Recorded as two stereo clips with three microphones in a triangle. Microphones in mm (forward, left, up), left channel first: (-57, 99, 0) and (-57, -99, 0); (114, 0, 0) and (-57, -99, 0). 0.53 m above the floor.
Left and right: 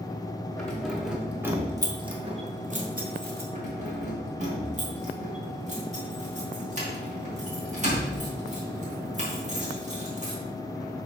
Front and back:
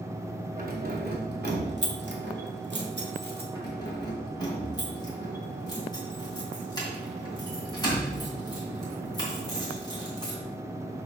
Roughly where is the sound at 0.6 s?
Behind.